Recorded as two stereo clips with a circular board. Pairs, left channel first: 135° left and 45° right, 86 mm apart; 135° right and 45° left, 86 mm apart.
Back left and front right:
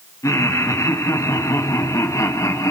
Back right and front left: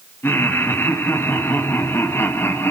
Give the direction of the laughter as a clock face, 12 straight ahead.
6 o'clock.